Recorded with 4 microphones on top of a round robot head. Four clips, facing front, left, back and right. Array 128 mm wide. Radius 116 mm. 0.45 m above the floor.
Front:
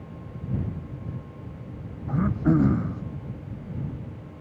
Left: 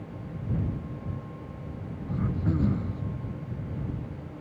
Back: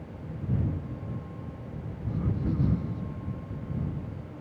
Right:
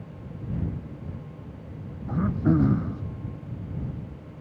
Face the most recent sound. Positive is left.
turn(degrees=-35)